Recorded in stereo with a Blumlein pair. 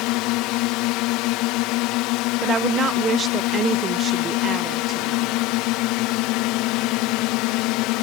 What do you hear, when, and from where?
0.0 s a drone: 40° left
2.4 s a woman speaking: 20° right